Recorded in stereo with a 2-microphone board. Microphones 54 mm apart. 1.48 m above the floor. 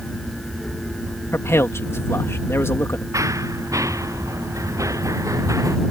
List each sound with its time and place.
1.3 s a man speaking: 55° left (ahead or behind)
3.1 s running footsteps: 80° right